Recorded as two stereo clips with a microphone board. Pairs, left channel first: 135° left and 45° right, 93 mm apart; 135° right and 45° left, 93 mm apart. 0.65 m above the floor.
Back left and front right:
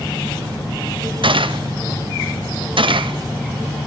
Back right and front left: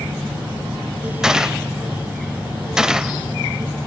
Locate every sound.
1.2 s a gunshot: 35° right, 0.6 m